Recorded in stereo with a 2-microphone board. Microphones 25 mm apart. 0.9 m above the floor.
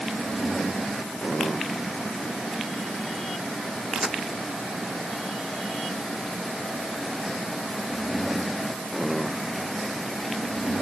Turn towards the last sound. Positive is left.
turn(degrees=-25)  # may be behind; listen again after turning